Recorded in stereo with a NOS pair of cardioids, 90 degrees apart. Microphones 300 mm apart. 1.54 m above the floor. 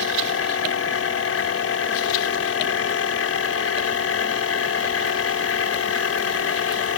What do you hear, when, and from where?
0.0 s a machine running: 50° left